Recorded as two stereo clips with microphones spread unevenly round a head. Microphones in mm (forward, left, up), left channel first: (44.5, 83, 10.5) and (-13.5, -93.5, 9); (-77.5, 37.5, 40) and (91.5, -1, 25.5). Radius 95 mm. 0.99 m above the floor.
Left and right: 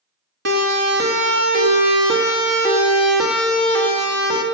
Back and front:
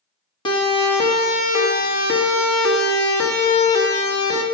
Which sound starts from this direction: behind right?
A siren, at 0.5 s.